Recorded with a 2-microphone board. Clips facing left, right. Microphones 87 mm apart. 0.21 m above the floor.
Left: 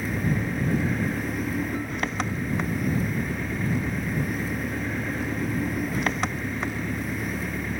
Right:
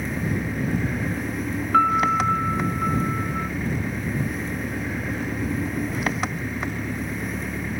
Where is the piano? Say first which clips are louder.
Right 10 dB; 85° right.